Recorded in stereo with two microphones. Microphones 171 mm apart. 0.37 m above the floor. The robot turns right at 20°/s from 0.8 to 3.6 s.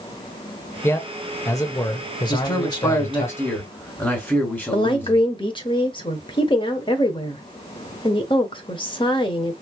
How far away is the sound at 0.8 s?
About 1.0 m.